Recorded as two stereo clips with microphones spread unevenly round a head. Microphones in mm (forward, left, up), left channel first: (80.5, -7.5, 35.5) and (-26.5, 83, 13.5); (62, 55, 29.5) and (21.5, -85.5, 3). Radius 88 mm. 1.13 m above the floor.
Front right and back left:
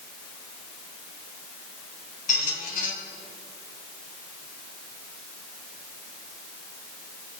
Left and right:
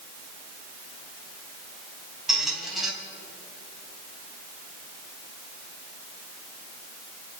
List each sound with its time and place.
2.3 s a squeak: 15° right, 3.5 m